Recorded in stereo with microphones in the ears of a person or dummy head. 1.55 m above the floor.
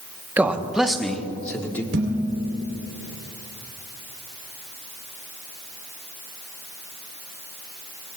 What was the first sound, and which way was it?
A man speaking, 10° right (ahead or behind).